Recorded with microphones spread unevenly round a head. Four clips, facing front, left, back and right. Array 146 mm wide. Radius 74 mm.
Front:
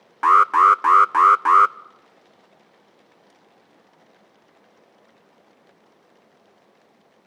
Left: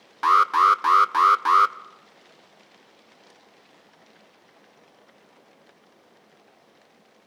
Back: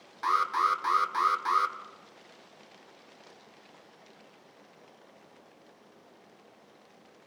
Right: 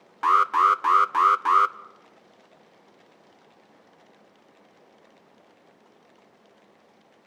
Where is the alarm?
Straight ahead, 0.5 m.